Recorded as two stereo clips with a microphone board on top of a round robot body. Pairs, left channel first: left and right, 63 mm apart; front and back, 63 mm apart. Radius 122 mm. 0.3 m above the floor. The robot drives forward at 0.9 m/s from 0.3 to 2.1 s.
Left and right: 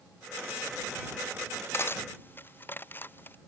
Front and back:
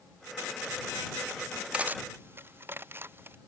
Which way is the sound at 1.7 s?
115° left.